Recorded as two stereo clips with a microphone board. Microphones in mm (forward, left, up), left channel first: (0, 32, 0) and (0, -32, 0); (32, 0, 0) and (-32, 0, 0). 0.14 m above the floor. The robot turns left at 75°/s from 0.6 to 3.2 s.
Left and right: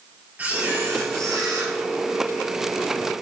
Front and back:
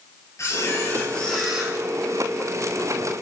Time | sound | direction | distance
0.4 | a camera shutter | 30° right | 2 m